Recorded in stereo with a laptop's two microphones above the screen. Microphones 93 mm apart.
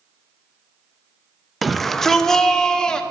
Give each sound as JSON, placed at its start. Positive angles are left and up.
{"t": 1.6, "sound": "a shout", "side_deg": 0, "distance_m": 0.6}